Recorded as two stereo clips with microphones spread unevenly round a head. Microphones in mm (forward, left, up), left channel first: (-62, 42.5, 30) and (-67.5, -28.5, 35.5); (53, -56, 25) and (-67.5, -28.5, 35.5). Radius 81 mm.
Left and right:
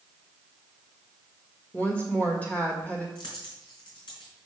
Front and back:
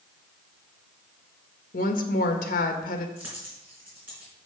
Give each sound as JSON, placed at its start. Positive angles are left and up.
{"t": 1.7, "sound": "a woman speaking", "azimuth_deg": 5, "distance_m": 1.4}
{"t": 3.1, "sound": "a dropped coin", "azimuth_deg": 90, "distance_m": 3.5}